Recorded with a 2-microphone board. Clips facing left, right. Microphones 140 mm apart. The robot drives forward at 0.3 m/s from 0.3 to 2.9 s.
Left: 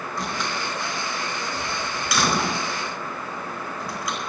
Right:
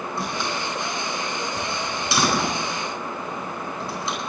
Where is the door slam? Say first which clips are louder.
Even; 20° right (ahead or behind), 9.5 m; by 4.2 s 25° right (ahead or behind), 9 m.